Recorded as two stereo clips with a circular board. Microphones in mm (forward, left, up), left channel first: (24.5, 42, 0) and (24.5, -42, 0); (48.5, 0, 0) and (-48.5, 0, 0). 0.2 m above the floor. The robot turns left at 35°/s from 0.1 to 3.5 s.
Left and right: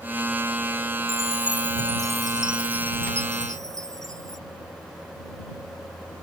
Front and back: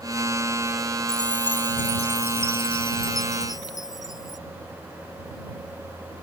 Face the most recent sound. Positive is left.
turn(degrees=-45)